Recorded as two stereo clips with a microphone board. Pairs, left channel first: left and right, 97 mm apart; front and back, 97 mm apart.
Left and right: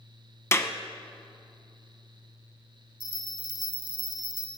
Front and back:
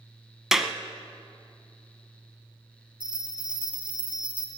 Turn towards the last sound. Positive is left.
turn(degrees=105)